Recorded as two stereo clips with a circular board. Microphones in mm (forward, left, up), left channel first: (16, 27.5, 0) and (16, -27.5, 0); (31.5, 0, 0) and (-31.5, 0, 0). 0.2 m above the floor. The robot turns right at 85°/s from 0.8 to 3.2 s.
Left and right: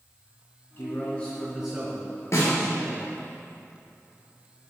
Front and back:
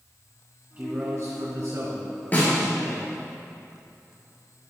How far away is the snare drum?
About 3.5 m.